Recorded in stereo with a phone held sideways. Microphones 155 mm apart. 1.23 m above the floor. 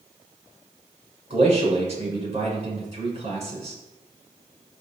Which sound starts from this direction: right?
A man speaking, at 1.3 s.